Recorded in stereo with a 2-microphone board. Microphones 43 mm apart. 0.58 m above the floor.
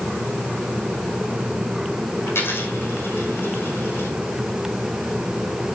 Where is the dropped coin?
65° left (ahead or behind), 8 m.